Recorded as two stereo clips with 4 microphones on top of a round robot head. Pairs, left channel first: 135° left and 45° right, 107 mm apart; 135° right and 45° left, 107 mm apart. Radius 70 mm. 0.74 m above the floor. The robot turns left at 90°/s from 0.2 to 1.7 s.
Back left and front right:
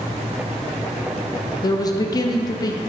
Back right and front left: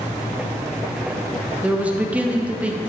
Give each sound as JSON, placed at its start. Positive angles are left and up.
{"t": 1.6, "sound": "a man speaking", "azimuth_deg": 120, "distance_m": 0.7}